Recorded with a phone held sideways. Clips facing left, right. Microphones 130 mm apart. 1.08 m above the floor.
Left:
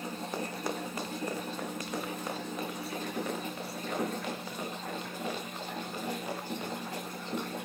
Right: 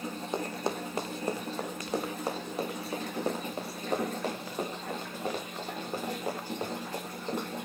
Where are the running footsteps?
25° right (ahead or behind), 3 m; by 7.5 s 40° right (ahead or behind), 10 m.